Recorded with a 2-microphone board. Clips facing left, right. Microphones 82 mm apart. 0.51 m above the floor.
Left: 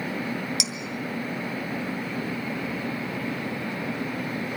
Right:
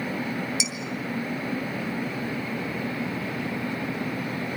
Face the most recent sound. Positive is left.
turn(degrees=75)  # may be behind; listen again after turning